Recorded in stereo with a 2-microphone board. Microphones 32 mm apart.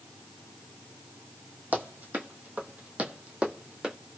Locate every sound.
1.7 s running footsteps: 70° right (ahead or behind), 1.4 m; by 4.0 s 25° right (ahead or behind), 1.4 m